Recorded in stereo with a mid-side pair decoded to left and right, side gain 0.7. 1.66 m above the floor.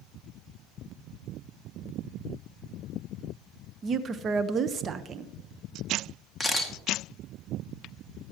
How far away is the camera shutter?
About 2 m.